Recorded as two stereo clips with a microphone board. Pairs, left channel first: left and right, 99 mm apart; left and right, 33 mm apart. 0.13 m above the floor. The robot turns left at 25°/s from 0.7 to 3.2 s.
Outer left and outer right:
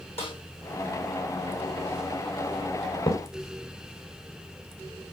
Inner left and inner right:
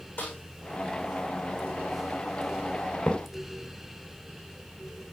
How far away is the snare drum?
About 7 m.